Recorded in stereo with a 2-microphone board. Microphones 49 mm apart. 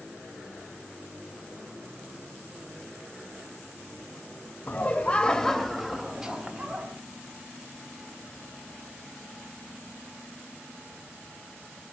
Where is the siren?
I don't hear a siren.